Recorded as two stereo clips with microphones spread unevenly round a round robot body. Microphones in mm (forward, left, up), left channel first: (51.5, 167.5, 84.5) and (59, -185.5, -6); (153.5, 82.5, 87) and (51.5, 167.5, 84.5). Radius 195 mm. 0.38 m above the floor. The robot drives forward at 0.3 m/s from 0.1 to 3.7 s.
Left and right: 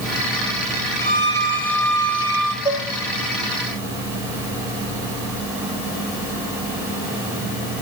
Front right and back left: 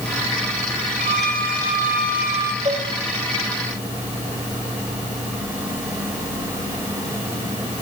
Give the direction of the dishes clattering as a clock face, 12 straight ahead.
6 o'clock.